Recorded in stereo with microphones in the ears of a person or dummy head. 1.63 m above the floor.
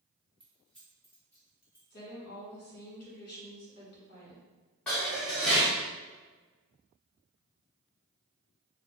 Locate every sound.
0.4 s keys jangling: centre (ahead or behind), 0.9 m; by 1.8 s 15° left (ahead or behind), 1.7 m
1.9 s a woman speaking: 55° left (ahead or behind), 1.5 m
4.9 s dishes clattering: 10° left (ahead or behind), 0.6 m